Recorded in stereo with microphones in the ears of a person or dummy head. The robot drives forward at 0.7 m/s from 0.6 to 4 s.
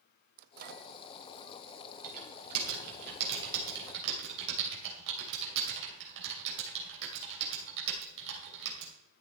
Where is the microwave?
55° right (ahead or behind), 0.5 m; by 0.9 s 60° right (ahead or behind), 0.5 m.